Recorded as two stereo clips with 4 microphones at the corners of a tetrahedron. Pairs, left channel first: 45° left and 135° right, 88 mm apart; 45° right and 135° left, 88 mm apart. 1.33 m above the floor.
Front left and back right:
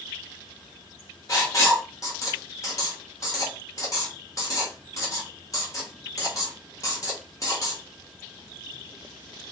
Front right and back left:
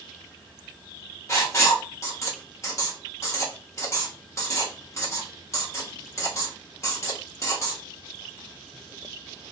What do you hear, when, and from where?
1.3 s writing: 5° left, 0.9 m